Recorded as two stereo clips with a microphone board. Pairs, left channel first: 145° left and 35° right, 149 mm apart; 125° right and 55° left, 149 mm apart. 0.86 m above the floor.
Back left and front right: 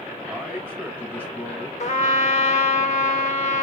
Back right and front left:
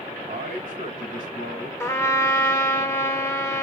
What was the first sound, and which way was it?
A man speaking, 40° left.